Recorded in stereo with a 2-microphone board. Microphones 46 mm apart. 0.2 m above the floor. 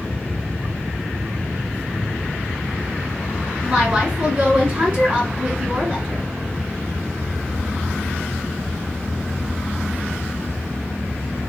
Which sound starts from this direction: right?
A woman speaking, at 3.6 s.